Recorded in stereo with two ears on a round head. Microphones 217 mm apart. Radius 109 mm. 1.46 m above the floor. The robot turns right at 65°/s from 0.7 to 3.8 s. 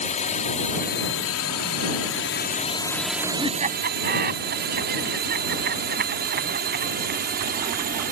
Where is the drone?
30° left (ahead or behind); by 8.1 s 40° right (ahead or behind).